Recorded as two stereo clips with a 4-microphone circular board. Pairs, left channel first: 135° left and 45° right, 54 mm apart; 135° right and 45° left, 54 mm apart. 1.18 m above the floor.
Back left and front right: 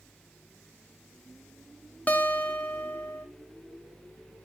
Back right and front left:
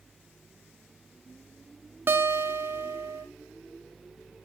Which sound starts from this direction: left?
A guitar, at 2.1 s.